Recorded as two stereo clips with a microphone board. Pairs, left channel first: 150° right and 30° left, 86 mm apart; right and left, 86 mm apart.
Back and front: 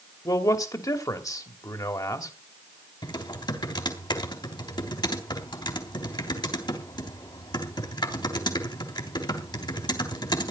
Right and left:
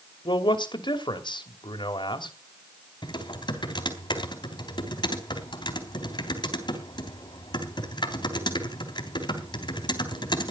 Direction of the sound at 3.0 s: 115° right.